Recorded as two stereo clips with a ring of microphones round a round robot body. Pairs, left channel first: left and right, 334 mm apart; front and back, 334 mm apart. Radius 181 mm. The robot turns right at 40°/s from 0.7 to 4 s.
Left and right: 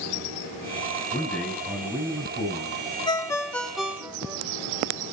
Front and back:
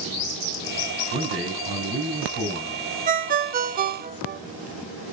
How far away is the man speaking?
About 4 m.